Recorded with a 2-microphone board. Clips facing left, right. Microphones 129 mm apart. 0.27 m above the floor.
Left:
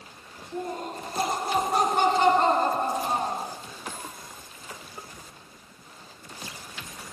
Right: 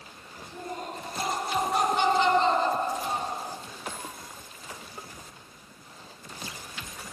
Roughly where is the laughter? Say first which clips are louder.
Left 4 dB; left.